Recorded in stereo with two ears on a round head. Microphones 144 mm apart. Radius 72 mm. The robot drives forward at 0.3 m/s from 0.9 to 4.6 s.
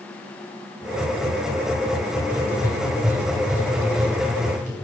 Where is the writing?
15° right (ahead or behind), 1.9 m; by 4.7 s 10° right (ahead or behind), 2.5 m.